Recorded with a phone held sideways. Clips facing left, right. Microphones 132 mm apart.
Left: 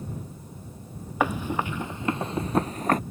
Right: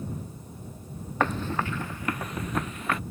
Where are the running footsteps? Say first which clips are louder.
Left 1 dB; 10° left (ahead or behind); by 3.0 s 45° left (ahead or behind).